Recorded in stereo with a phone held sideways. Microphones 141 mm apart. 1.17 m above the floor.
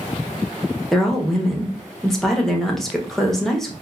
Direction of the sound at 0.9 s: 5° left (ahead or behind).